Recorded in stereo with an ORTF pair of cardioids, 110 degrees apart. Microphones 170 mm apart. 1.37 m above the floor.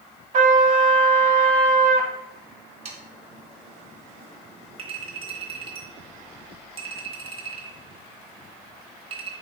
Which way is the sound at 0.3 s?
45° right.